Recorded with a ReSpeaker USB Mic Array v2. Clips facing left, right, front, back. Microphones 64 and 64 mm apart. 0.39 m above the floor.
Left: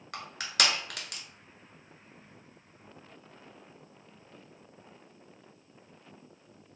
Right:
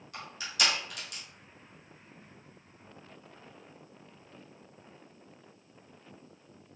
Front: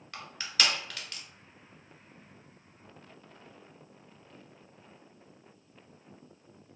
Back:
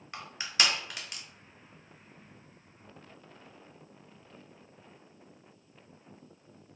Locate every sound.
0.1 s crushing: 110° left, 1.0 m